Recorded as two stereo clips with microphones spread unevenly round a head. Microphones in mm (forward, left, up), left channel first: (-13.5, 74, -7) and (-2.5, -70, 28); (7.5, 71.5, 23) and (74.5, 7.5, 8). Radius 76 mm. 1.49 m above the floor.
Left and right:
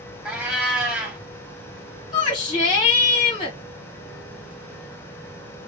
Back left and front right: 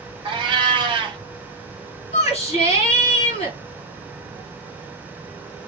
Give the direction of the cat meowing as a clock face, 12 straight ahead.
1 o'clock.